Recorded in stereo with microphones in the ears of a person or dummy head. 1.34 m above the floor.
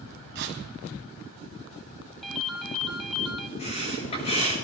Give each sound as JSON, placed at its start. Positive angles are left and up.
{"t": 0.3, "sound": "tearing paper", "side_deg": -55, "distance_m": 1.9}
{"t": 2.2, "sound": "a ringtone", "side_deg": 0, "distance_m": 1.1}
{"t": 3.6, "sound": "breathing", "side_deg": 35, "distance_m": 8.0}